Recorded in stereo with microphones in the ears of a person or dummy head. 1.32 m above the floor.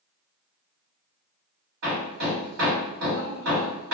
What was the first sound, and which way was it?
Hammering, 70° right (ahead or behind).